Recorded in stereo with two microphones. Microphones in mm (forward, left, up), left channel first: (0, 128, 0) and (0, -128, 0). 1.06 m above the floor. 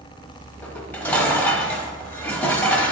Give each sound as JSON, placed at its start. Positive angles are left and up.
{"t": 0.6, "sound": "dishes clattering", "side_deg": 5, "distance_m": 1.3}